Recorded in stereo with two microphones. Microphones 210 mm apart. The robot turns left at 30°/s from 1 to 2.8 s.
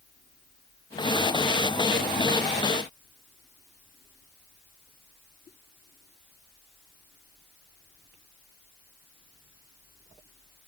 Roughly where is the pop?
No pop in this recording.